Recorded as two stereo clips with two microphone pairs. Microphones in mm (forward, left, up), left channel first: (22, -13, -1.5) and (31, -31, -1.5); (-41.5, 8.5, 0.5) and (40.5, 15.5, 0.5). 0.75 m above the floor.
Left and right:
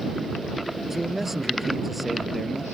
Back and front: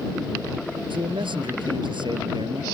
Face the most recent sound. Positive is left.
turn(degrees=20)